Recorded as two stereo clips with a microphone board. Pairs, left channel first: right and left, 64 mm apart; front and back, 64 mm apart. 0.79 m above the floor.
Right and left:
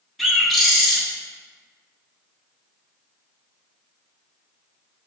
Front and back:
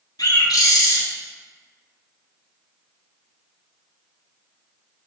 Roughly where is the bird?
Ahead.